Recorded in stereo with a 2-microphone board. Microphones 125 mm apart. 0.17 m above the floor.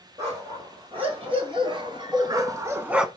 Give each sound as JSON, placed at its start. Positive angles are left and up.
{"t": 0.2, "sound": "a dog barking", "side_deg": -50, "distance_m": 2.5}